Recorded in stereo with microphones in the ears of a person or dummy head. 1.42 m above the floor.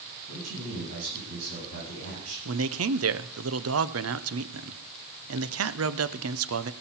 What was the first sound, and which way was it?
A man speaking, 90° right.